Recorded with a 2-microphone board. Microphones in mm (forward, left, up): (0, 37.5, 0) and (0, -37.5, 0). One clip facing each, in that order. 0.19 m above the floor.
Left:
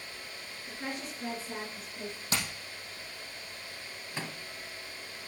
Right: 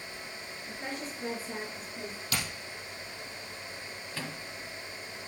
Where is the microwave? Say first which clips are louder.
Even; 20° left (ahead or behind), 1.0 m.